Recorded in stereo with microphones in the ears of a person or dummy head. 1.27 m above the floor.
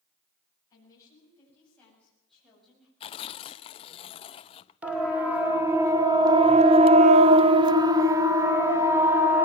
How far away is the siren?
About 2.5 m.